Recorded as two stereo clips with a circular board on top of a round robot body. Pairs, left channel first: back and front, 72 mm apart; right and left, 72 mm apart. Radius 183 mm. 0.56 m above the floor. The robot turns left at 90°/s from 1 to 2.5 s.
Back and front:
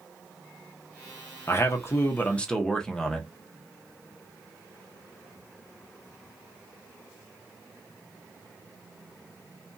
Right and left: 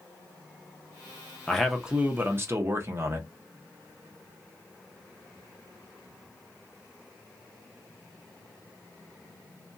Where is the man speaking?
160° right, 0.9 m; by 3.3 s 105° left, 0.9 m.